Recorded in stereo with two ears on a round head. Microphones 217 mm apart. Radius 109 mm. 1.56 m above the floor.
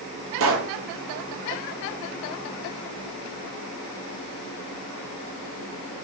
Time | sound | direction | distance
0.4 | a pop | 55° right (ahead or behind) | 1.2 m